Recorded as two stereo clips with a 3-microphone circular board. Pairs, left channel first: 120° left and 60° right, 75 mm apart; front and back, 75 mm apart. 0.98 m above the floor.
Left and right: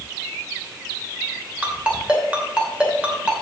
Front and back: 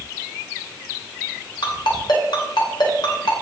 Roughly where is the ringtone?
Ahead.